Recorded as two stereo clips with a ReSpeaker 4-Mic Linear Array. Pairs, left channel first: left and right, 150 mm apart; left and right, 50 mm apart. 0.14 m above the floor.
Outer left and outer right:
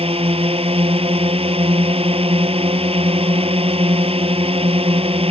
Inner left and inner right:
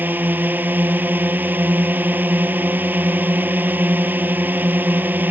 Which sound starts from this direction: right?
A drone, at 0.0 s.